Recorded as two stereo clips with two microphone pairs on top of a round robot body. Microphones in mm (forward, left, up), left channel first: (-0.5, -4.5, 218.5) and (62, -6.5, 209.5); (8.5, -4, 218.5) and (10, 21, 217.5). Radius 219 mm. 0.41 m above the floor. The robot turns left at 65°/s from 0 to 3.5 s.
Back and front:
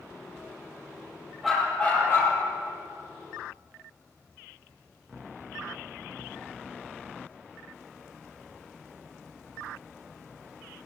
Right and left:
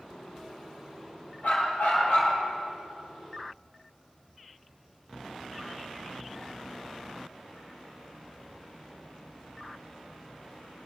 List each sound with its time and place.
1.4 s a dog barking: 90° right, 7.5 m; by 2.4 s 150° right, 7.5 m